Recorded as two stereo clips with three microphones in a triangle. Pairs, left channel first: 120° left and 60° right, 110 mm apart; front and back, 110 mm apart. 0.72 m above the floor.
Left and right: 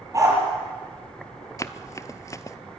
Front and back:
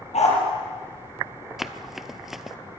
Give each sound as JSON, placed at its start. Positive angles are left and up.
{"t": 0.1, "sound": "a dog barking", "azimuth_deg": 0, "distance_m": 6.0}
{"t": 1.6, "sound": "running footsteps", "azimuth_deg": 95, "distance_m": 0.8}